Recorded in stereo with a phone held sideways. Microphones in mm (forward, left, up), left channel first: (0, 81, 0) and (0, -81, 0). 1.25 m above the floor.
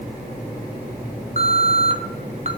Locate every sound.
1.4 s an alarm: 45° right (ahead or behind), 2.5 m